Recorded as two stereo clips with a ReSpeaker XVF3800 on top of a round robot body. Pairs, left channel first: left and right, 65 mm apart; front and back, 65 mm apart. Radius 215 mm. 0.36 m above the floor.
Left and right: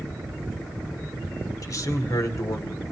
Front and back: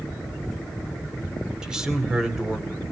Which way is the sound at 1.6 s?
100° left.